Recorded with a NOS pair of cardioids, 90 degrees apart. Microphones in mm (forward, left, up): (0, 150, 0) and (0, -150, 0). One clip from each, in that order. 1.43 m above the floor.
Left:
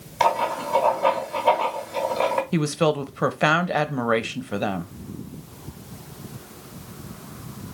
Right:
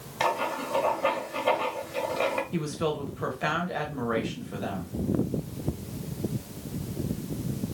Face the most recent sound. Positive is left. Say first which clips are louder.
# left 8 dB
turn(degrees=50)